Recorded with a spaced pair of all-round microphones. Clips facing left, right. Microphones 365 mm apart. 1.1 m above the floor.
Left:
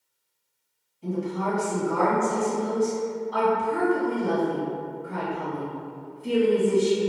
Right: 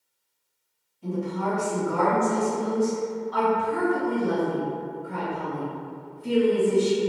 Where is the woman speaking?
Centre (ahead or behind), 1.8 m.